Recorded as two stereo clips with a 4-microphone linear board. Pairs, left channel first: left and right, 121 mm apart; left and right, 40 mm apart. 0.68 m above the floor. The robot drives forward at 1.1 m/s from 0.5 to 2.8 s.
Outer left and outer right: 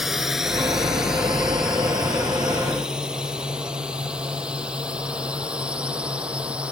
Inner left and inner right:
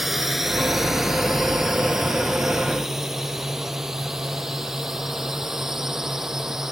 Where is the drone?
5° right (ahead or behind); by 6.7 s 10° right (ahead or behind).